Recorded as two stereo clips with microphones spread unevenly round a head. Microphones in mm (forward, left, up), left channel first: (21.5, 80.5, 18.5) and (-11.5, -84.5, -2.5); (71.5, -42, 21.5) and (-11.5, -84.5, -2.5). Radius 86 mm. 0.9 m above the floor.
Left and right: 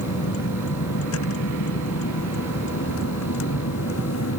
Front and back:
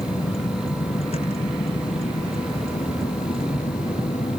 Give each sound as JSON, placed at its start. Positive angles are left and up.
{"t": 0.0, "sound": "a vehicle", "azimuth_deg": 85}